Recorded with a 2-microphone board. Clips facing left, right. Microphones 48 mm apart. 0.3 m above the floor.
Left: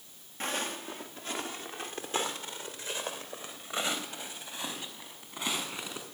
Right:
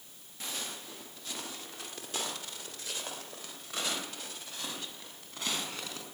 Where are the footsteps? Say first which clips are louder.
Left 7 dB; 40° left (ahead or behind), 1.8 m; by 6.0 s 15° left (ahead or behind), 4.5 m.